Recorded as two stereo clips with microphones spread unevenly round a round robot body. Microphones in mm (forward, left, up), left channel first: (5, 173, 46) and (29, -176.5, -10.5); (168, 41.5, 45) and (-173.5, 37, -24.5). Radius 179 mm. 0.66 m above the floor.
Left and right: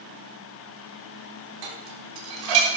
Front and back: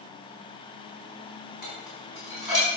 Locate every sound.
1.6 s dishes clattering: 90° right, 4 m